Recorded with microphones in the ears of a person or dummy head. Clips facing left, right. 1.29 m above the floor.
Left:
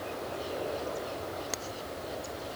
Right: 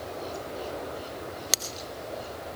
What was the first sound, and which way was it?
Only background noise.